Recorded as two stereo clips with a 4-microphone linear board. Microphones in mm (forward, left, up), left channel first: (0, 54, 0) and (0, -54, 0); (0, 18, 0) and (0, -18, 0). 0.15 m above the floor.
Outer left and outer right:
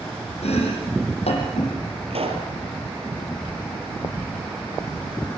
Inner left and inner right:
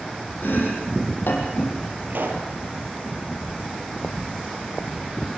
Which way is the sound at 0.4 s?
70° left (ahead or behind).